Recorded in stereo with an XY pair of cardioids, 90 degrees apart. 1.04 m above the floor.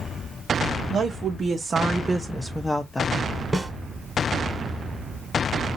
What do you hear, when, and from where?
0.9 s a woman speaking: 60° right, 1.5 m; by 3.3 s 35° left, 1.1 m
3.5 s a snare drum: 15° right, 1.8 m